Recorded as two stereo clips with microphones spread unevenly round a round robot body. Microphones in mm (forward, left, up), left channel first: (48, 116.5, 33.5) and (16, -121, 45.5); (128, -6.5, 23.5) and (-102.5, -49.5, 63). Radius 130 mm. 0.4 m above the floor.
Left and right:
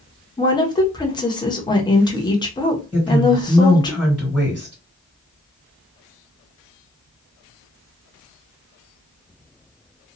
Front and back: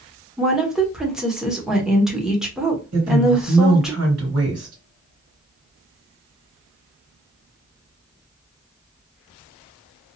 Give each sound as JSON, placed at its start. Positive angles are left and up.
{"t": 0.4, "sound": "a woman speaking", "azimuth_deg": 80, "distance_m": 0.9}
{"t": 2.9, "sound": "a woman speaking", "azimuth_deg": 175, "distance_m": 2.0}